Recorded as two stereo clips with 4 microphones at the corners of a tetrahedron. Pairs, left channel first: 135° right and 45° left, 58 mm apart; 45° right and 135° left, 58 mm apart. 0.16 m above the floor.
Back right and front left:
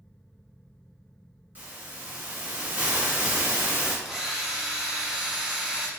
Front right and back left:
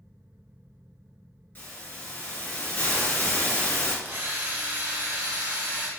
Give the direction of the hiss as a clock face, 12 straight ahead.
12 o'clock.